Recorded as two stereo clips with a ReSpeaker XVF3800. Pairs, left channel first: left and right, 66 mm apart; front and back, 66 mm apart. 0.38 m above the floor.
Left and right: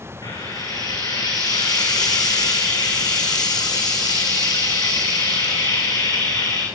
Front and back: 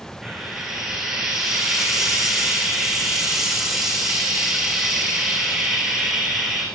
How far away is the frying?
About 8 m.